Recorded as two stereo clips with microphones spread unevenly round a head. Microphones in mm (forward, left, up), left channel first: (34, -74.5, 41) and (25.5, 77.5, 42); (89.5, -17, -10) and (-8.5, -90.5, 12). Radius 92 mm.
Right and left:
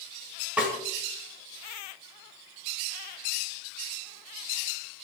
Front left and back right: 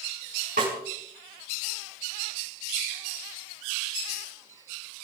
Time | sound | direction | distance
0.6 | a snare drum | 175° left | 6.5 m